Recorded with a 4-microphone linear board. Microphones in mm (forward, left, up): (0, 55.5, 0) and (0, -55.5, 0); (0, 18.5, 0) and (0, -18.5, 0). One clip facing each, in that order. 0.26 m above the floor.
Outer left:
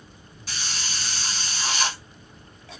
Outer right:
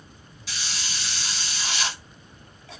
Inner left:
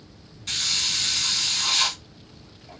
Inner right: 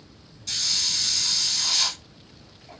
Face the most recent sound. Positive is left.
turn(degrees=45)  # may be behind; listen again after turning